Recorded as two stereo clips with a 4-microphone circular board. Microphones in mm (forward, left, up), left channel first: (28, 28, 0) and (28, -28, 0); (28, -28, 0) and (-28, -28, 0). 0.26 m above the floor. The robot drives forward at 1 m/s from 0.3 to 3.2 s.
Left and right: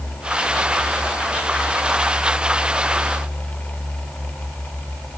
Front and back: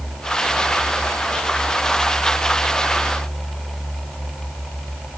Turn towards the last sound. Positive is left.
No sound to turn to.